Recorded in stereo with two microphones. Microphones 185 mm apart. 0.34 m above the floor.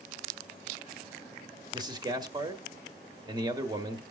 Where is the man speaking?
25° right (ahead or behind), 1.3 m.